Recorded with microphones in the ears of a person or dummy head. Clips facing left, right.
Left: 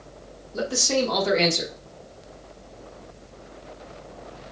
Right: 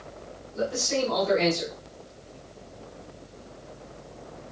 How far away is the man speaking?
About 0.9 m.